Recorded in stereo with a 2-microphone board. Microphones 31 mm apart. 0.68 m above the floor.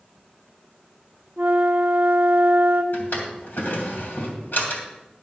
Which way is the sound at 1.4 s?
50° right (ahead or behind).